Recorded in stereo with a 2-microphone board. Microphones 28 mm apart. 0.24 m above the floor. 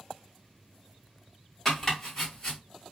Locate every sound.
1.6 s chopping: 10° left (ahead or behind), 1.7 m